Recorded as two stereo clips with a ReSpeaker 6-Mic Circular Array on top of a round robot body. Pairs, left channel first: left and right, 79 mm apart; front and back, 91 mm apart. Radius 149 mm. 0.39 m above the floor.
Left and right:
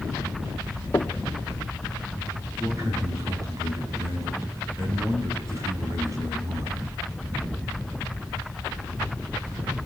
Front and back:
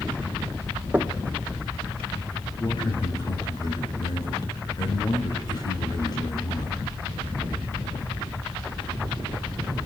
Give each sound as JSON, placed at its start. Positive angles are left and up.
{"t": 0.9, "sound": "knocking", "azimuth_deg": 125, "distance_m": 1.1}
{"t": 2.6, "sound": "a man speaking", "azimuth_deg": -40, "distance_m": 4.5}